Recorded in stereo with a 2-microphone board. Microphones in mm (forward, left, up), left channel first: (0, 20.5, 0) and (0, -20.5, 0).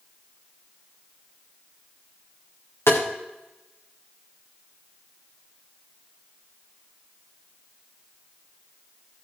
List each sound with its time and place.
2.9 s tapping: 80° left, 4 m